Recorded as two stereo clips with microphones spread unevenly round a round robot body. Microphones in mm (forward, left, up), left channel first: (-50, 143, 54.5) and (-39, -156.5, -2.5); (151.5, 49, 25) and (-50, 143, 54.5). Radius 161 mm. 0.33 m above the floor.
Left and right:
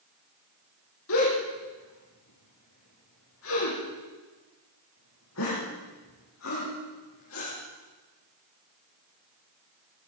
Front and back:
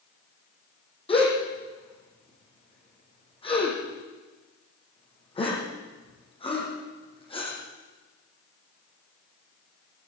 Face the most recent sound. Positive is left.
turn(degrees=40)